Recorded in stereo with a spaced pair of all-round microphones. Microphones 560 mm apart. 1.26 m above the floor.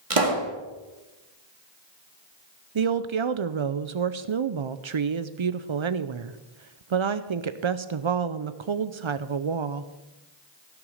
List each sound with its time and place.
0.1 s a pop: 70° right (ahead or behind), 1.8 m
2.8 s a woman speaking: 55° right (ahead or behind), 0.6 m